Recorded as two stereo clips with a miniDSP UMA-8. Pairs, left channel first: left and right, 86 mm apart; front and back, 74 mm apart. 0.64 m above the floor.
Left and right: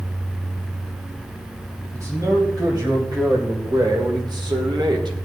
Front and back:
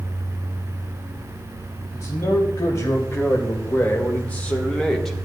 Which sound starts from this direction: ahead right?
A man speaking, at 1.9 s.